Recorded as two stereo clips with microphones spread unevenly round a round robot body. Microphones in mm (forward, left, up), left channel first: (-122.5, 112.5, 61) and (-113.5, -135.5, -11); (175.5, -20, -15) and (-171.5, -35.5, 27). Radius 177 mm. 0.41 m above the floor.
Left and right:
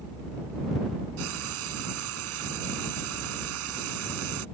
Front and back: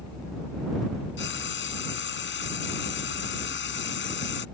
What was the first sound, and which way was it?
Frying, 55° right.